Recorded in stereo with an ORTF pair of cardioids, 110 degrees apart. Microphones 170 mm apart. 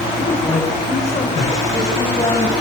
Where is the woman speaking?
10° left, 7 m; by 2.5 s 25° left, 7.5 m.